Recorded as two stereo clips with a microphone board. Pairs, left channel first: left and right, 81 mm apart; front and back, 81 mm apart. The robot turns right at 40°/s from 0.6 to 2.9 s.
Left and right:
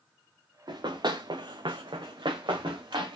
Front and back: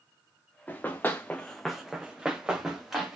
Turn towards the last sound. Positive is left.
turn(degrees=-95)